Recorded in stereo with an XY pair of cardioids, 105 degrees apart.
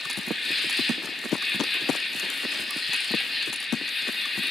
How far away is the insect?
About 1.8 m.